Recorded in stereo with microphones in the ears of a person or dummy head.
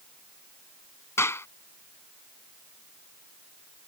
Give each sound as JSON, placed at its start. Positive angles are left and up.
{"t": 1.2, "sound": "a clap", "side_deg": 15}